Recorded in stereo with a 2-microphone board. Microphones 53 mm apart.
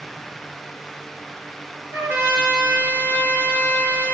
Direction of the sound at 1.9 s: 40° right (ahead or behind).